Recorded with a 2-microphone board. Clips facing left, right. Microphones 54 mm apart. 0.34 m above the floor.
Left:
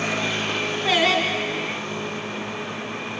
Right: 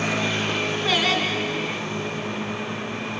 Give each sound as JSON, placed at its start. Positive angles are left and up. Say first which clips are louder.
{"t": 0.8, "sound": "singing", "louder": "left 4 dB", "side_deg": 5, "distance_m": 1.9}